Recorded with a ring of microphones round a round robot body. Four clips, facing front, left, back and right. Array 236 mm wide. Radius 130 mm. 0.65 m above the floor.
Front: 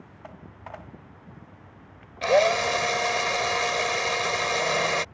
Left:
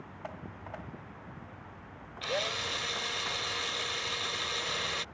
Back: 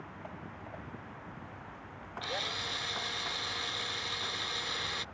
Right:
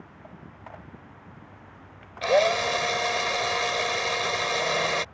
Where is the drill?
40° right.